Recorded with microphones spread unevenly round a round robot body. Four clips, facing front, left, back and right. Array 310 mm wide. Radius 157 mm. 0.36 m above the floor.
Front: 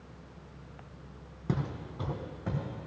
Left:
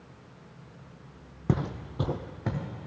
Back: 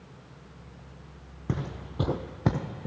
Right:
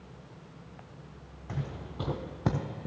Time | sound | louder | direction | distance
1.5 | footsteps | left 9 dB, even | 100° left | 1.0 m